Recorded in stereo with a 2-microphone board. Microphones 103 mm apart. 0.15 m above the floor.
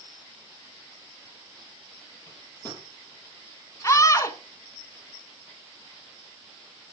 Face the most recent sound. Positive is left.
turn(degrees=30)  # may be behind; listen again after turning